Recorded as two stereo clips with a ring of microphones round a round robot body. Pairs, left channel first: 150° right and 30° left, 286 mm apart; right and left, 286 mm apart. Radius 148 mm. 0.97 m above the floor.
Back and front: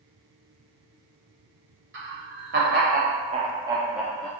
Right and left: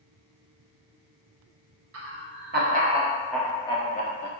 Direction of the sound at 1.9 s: 70° left.